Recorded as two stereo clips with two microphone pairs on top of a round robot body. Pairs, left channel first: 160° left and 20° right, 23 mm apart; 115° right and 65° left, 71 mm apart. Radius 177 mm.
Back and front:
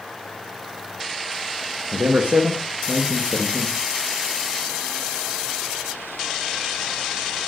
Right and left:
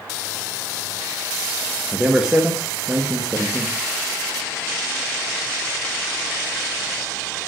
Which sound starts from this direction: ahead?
A man speaking, at 1.9 s.